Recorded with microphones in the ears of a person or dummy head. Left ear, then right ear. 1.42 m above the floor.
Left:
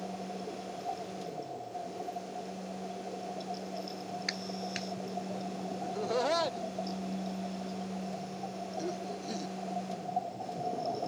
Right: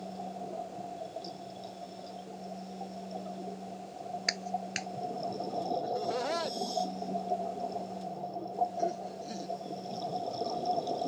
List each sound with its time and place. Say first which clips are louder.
4.3 s a clap: right 5 dB; 30° right (ahead or behind)
5.8 s laughter: left 1 dB; 10° left (ahead or behind)